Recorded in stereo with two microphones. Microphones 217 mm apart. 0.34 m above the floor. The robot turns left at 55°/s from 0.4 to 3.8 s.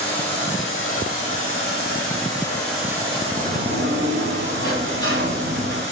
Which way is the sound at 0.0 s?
130° left.